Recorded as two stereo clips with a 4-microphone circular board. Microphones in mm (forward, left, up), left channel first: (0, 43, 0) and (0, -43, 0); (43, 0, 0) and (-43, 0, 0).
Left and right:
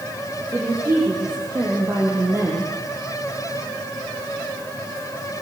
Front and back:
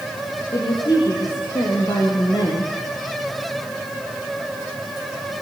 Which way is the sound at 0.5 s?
35° right.